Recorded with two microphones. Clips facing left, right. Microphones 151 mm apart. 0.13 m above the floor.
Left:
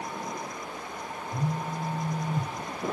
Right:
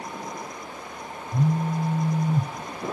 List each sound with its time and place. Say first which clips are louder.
1.3 s a phone buzzing: right 8 dB; 75° right (ahead or behind), 0.6 m